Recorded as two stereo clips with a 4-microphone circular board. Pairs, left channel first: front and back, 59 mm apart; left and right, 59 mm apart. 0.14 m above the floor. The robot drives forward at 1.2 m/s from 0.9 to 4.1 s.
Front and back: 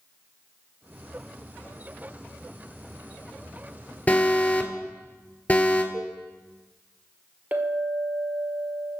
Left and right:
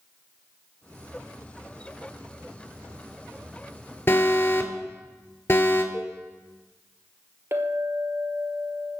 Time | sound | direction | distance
4.1 | an alarm | 55° left | 1.7 m
5.9 | a cowbell | 155° left | 3.5 m
7.5 | a clink | 125° right | 1.7 m